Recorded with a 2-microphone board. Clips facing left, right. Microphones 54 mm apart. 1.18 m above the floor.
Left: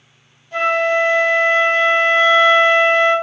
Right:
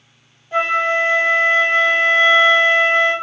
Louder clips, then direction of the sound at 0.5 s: Left 1 dB; 20° right (ahead or behind).